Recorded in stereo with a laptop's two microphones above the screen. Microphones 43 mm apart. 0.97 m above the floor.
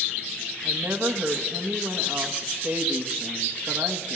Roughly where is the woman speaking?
Right.